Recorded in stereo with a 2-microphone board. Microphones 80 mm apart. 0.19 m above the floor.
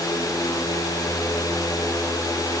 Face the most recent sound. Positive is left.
No sound to turn to.